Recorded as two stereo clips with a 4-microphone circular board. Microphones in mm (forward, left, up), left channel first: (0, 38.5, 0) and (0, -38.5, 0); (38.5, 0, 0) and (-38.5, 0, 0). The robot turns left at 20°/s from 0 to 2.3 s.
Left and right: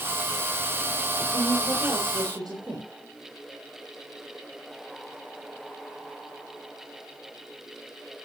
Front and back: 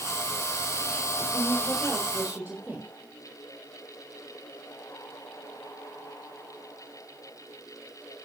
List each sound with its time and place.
1.3 s a woman speaking: 90° right, 4.5 m; by 2.9 s 110° right, 4.5 m